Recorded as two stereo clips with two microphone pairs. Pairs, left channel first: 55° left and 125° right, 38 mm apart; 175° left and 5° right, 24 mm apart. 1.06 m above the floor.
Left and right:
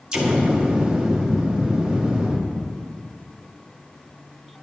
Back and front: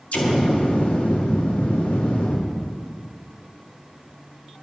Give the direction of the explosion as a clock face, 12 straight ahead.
7 o'clock.